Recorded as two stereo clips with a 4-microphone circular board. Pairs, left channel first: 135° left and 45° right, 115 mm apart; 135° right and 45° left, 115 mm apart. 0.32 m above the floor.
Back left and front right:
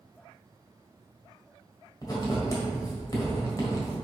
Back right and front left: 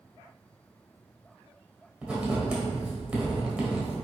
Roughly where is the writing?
Behind left.